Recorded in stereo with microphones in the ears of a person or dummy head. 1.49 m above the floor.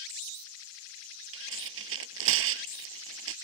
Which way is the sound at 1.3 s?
85° right.